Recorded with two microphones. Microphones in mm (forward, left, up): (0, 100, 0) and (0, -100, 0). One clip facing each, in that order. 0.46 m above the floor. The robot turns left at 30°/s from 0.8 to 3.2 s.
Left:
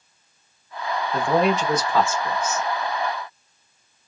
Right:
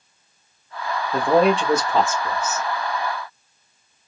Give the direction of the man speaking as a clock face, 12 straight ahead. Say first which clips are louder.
Right 4 dB; 4 o'clock.